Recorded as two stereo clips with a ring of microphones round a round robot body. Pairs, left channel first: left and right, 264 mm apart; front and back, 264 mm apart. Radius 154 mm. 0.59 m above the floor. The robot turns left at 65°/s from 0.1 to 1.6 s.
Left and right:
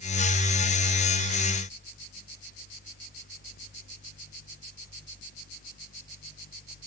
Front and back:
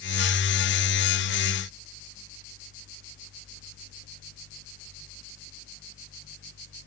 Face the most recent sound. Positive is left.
No sound to turn to.